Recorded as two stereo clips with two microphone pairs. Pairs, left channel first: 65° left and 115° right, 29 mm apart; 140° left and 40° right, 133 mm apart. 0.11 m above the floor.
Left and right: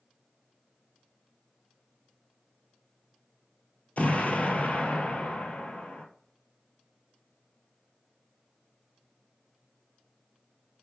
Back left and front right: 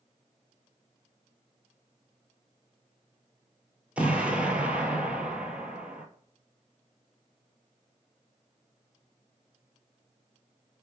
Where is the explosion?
45° left, 0.7 m.